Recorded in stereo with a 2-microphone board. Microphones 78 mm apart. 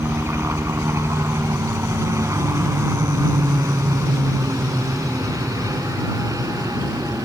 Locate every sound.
0.0 s a helicopter: 35° right (ahead or behind); by 7.2 s 50° right (ahead or behind)